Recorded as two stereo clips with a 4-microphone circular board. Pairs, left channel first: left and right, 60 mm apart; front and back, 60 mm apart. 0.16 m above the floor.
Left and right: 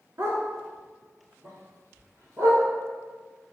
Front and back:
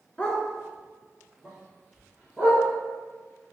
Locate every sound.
0.2 s a dog barking: 70° right, 0.8 m; by 2.6 s 110° right, 2.0 m